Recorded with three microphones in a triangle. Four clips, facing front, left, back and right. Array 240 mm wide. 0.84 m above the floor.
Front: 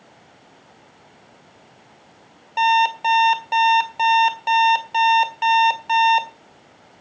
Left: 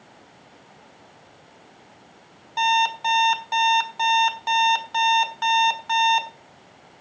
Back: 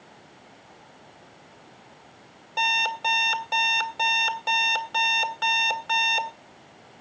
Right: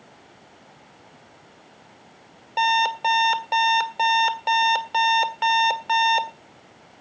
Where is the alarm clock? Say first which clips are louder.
Even, front 10 dB; 105° right, 1.7 m.